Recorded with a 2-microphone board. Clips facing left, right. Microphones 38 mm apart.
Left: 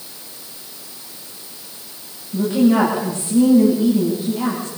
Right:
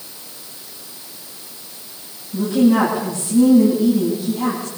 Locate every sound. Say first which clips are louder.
2.3 s a woman speaking: even; 35° left (ahead or behind), 9 m